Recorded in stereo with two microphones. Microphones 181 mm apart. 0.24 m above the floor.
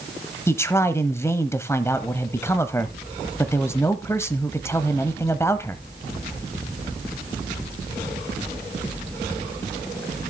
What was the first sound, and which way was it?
A man speaking, 15° left (ahead or behind).